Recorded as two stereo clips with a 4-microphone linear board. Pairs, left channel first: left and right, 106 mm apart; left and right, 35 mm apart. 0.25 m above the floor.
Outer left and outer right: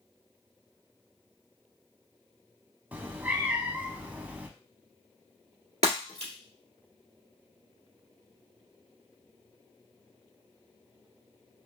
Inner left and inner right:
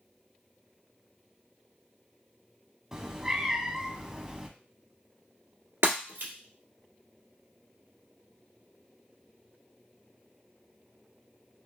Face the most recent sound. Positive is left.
turn(degrees=-75)  # may be behind; listen again after turning